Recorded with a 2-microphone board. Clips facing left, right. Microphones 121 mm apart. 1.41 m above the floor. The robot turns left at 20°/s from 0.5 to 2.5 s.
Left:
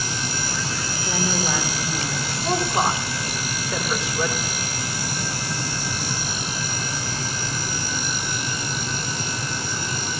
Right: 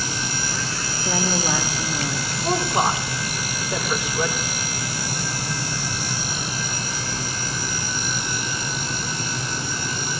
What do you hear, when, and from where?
1.1 s a woman speaking: 40° right (ahead or behind), 3 m; by 2.3 s 15° right (ahead or behind), 3 m
2.4 s a woman speaking: 15° right (ahead or behind), 6 m